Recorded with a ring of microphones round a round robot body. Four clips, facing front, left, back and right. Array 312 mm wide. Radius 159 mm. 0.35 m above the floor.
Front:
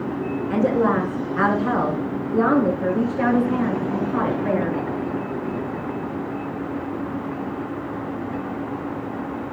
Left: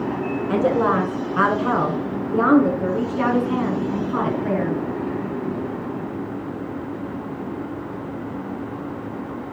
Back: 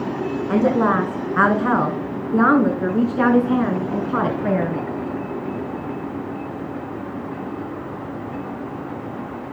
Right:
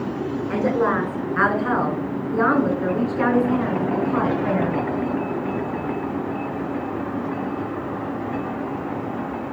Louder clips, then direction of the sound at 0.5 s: Left 2 dB, back 2 dB; 160° left.